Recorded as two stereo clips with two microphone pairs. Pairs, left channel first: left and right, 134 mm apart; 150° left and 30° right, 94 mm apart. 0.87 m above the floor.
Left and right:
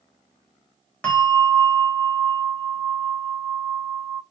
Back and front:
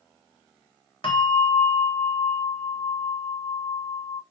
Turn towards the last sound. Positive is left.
turn(degrees=165)